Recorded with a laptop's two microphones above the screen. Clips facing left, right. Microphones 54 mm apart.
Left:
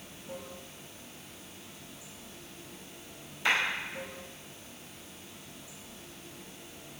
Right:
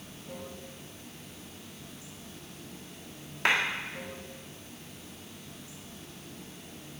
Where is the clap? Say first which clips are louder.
Right 2 dB; 65° right (ahead or behind), 1.7 m.